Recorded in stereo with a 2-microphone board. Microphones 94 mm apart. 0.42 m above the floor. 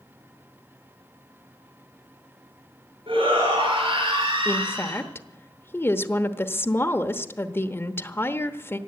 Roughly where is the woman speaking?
Left.